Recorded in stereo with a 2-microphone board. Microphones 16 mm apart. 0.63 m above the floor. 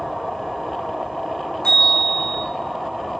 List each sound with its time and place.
1.6 s a bell: 70° left (ahead or behind), 5.5 m